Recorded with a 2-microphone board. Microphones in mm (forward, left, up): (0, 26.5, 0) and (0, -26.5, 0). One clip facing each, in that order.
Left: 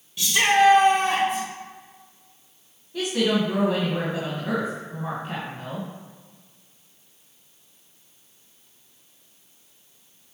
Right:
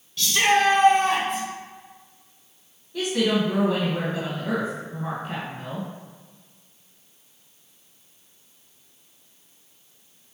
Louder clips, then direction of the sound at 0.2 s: Left 1 dB; 15° left (ahead or behind).